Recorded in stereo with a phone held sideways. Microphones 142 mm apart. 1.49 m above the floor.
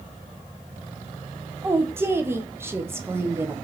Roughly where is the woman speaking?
Centre.